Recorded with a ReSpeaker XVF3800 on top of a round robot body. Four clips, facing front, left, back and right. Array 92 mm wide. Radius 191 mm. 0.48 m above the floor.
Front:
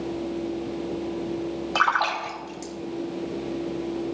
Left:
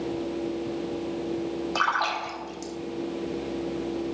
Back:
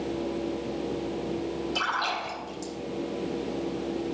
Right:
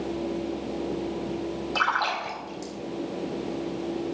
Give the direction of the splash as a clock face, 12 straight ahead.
12 o'clock.